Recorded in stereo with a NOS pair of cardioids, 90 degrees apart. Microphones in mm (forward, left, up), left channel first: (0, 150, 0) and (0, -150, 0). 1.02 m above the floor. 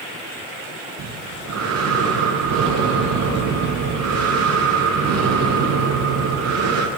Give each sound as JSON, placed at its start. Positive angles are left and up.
{"t": 1.0, "sound": "breathing", "azimuth_deg": -60, "distance_m": 8.5}